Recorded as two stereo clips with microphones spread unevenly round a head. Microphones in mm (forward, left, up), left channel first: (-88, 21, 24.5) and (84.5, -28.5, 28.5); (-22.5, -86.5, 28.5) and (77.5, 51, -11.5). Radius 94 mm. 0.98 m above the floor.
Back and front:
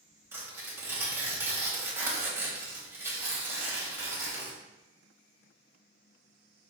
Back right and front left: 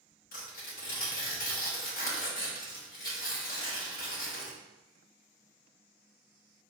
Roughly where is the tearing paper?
Right.